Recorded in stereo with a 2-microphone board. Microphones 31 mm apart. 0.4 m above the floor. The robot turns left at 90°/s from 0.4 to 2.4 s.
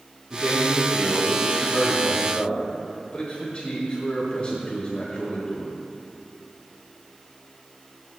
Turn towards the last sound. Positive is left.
turn(degrees=150)